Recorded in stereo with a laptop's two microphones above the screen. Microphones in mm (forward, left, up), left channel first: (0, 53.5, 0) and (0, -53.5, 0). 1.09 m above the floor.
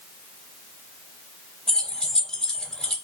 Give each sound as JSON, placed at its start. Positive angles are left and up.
{"t": 1.7, "sound": "keys jangling", "side_deg": 5, "distance_m": 3.0}